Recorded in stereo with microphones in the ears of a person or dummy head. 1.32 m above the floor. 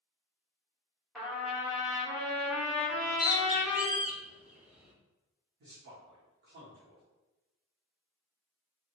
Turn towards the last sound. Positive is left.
turn(degrees=-50)  # may be behind; listen again after turning